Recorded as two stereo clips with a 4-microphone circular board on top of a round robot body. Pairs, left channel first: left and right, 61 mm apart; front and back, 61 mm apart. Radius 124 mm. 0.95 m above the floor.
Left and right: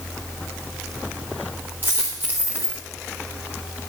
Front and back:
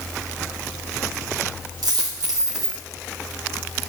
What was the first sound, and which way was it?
A dropped coin, 155° right.